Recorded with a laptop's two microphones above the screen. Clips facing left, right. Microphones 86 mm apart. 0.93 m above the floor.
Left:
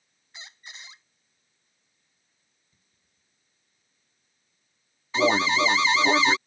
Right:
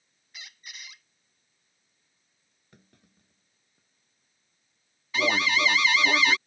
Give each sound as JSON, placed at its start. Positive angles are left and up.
{"t": 0.3, "sound": "a squeak", "side_deg": 30}
{"t": 2.7, "sound": "a clunk", "side_deg": -85}
{"t": 5.1, "sound": "an alarm", "side_deg": 25}